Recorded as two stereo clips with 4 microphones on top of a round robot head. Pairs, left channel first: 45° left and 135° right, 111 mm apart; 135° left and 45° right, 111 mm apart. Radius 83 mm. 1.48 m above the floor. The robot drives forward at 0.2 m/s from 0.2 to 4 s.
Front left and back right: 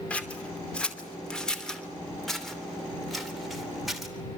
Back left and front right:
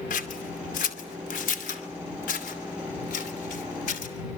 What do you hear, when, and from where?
0.1 s scissors: 125° left, 2.5 m; by 4.1 s 135° left, 3 m